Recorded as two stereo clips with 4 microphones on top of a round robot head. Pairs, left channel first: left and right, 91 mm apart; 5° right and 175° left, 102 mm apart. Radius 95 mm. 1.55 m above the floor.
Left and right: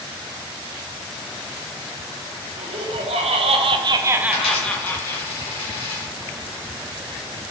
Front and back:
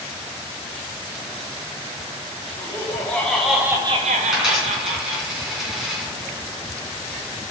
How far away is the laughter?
About 1.8 m.